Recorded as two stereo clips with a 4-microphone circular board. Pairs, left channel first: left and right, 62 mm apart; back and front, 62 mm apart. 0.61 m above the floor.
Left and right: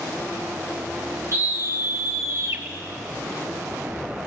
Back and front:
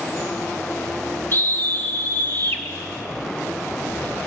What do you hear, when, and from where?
1.3 s a scream: 130° right, 3 m; by 2.6 s 120° right, 3.5 m